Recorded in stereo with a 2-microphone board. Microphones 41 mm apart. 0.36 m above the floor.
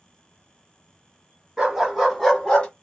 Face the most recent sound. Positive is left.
turn(degrees=30)  # may be behind; listen again after turning